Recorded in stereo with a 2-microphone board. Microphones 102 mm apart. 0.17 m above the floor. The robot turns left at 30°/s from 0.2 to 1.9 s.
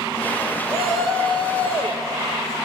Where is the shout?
175° right, 3 m; by 2.6 s 150° left, 3 m.